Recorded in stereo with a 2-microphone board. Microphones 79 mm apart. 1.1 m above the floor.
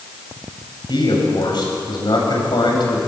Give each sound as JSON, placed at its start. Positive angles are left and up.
{"t": 0.9, "sound": "a man speaking", "side_deg": 70, "distance_m": 7.5}